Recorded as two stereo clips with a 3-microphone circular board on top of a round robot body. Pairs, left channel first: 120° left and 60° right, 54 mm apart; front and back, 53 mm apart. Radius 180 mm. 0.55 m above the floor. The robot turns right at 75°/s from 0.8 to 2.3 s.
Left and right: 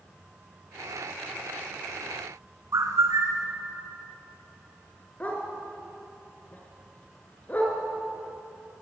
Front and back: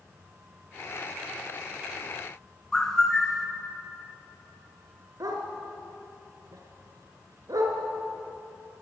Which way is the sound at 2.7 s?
80° right.